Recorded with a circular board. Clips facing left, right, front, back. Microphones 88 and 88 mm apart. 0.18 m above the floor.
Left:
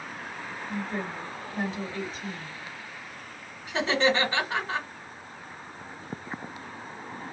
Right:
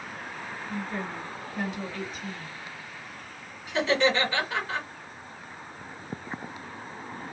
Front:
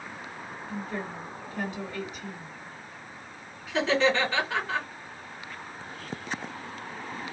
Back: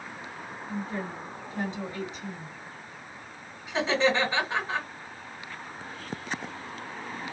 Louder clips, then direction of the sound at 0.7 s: Left 1 dB, back 1 dB; 130° left.